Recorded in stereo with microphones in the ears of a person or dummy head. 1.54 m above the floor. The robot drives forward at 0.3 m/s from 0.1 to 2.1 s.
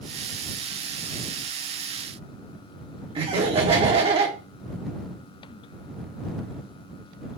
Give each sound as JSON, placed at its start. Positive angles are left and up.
{"t": 3.1, "sound": "laughter", "side_deg": -30, "distance_m": 0.9}